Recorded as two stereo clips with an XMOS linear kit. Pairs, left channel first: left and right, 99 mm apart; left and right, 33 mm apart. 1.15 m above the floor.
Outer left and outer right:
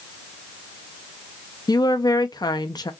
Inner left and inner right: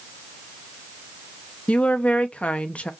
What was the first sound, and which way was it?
A woman speaking, 45° left (ahead or behind).